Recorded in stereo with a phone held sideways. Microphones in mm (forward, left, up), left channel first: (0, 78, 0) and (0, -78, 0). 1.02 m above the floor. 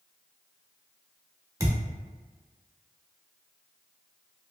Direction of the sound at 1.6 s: 20° right (ahead or behind).